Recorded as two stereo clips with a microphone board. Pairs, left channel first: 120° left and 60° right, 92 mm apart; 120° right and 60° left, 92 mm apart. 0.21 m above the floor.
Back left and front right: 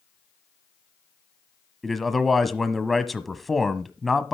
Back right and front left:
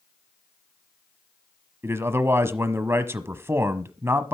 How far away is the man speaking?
About 1.1 m.